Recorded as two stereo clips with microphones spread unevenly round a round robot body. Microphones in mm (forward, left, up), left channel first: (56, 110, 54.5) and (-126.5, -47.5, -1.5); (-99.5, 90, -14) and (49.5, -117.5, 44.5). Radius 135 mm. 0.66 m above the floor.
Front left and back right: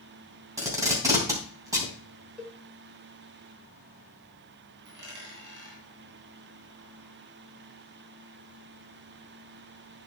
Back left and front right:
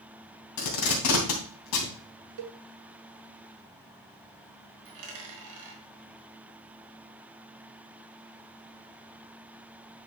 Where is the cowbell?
50° right, 0.9 m.